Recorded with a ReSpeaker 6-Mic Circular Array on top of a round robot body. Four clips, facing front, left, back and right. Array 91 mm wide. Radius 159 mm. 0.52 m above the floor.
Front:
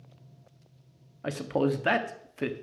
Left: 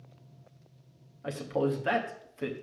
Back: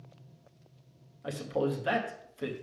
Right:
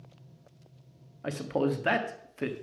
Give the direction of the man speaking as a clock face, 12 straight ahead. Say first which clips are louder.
Right 1 dB, front 4 dB; 1 o'clock.